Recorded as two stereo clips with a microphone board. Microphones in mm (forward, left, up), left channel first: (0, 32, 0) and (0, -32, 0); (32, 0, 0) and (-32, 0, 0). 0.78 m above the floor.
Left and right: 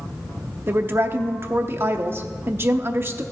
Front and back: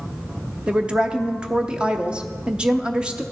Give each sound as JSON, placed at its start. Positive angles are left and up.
{"t": 0.7, "sound": "a woman speaking", "azimuth_deg": -115, "distance_m": 0.6}